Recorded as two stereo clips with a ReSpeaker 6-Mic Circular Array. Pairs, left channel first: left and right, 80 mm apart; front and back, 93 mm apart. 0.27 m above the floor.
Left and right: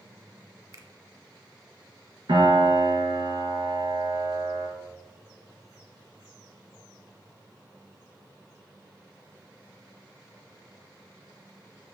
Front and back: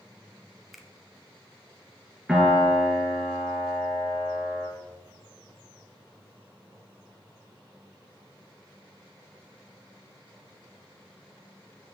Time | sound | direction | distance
0.7 | a finger snap | 95° right | 0.9 m
2.3 | a piano | 95° right | 2 m